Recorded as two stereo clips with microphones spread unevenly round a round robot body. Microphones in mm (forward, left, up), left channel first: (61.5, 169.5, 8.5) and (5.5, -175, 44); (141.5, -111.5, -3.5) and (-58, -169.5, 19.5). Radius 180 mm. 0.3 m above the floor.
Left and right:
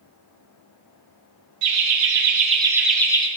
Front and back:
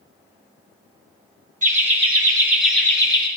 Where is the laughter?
120° right, 1.2 m; by 3.3 s 35° left, 1.0 m.